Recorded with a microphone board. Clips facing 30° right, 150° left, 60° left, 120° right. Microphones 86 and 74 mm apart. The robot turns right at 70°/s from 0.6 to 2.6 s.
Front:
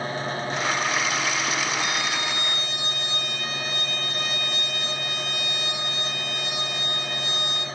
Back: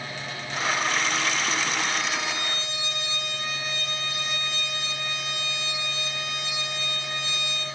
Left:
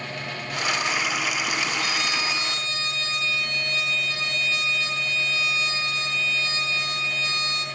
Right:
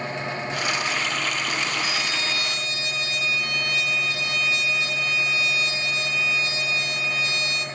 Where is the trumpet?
50° right, 2.5 m; by 7.7 s 5° left, 2.5 m.